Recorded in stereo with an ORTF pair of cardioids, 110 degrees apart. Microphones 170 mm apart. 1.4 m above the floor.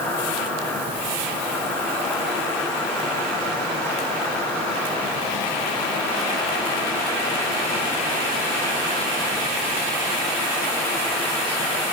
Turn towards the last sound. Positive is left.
turn(degrees=15)